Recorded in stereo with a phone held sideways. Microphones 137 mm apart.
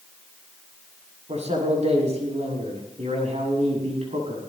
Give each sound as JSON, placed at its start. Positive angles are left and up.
{"t": 1.3, "sound": "a man speaking", "side_deg": -55, "distance_m": 7.5}